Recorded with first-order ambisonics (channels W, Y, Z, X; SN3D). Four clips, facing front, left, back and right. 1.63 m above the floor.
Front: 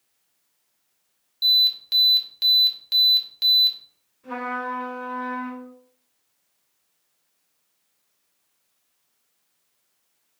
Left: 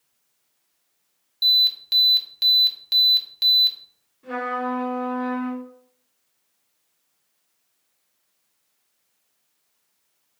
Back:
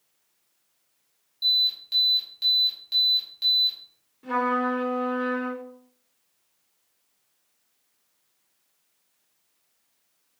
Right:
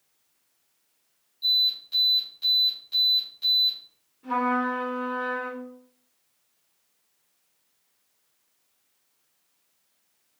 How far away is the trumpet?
About 3 m.